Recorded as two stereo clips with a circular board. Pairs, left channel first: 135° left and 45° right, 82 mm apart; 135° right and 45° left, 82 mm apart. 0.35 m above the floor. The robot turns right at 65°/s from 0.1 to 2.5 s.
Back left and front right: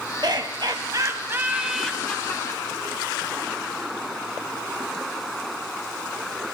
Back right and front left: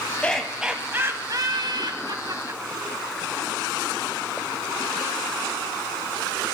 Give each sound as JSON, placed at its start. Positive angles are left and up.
{"t": 0.2, "sound": "laughter", "azimuth_deg": -65, "distance_m": 2.5}